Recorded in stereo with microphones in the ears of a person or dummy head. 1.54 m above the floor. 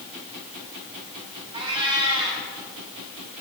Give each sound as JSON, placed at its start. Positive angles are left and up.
{"t": 1.5, "sound": "a cat meowing", "side_deg": -30, "distance_m": 5.5}